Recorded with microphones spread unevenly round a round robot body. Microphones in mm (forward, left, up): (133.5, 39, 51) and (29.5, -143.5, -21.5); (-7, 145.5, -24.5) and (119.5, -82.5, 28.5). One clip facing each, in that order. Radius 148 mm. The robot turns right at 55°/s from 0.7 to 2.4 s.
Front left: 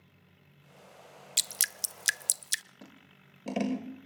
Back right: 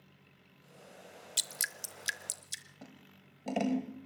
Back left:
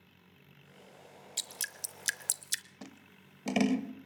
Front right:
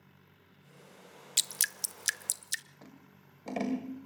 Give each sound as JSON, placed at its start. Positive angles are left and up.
{"t": 1.4, "sound": "dripping", "azimuth_deg": -15, "distance_m": 0.6}
{"t": 2.8, "sound": "scissors", "azimuth_deg": 150, "distance_m": 1.4}